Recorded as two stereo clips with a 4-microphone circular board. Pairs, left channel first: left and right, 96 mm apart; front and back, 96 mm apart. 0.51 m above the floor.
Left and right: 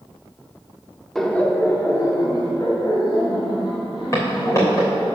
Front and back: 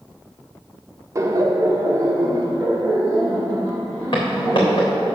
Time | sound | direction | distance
1.1 | laughter | 175° left | 0.7 m
4.1 | footsteps | 35° left | 3 m